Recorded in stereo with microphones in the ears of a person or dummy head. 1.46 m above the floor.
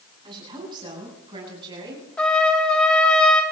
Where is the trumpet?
10° left (ahead or behind), 2.5 m.